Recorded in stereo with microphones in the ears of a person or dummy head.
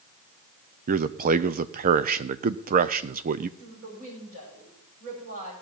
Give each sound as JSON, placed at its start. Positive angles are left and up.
{"t": 0.9, "sound": "a man speaking", "side_deg": -45, "distance_m": 0.6}
{"t": 3.6, "sound": "a woman speaking", "side_deg": -50, "distance_m": 5.0}